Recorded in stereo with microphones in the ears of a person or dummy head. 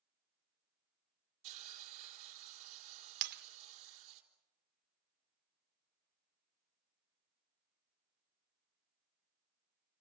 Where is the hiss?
40° right (ahead or behind), 4 m.